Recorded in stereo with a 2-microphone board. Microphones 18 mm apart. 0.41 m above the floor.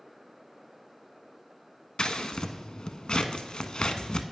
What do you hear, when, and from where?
2.0 s scissors: 60° left (ahead or behind), 0.6 m